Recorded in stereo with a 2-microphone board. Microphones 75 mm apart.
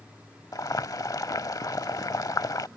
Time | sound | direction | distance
0.5 | boiling | 55° left (ahead or behind) | ?